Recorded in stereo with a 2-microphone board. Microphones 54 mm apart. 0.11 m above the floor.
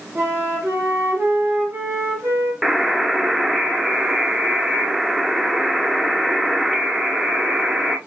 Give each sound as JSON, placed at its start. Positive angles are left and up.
{"t": 0.1, "sound": "a flute", "side_deg": -50, "distance_m": 2.5}
{"t": 2.6, "sound": "a buzzer", "side_deg": -5, "distance_m": 0.5}